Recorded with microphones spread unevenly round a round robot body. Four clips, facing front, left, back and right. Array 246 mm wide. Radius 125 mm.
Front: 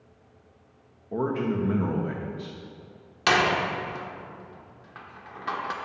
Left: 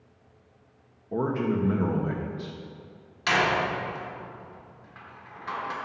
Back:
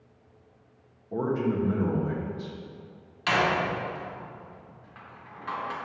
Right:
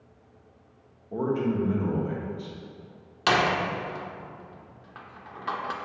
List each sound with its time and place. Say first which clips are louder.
1.1 s a man speaking: even, even; 50° left, 1.1 m
3.3 s a door slam: right 1 dB, front 2 dB; 40° right, 1.3 m